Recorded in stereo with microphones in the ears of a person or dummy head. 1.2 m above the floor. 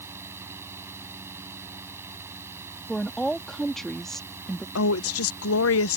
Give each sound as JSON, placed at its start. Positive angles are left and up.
{"t": 0.0, "sound": "a fan", "side_deg": -15}
{"t": 2.9, "sound": "a woman speaking", "side_deg": 5}
{"t": 4.8, "sound": "a woman speaking", "side_deg": 75}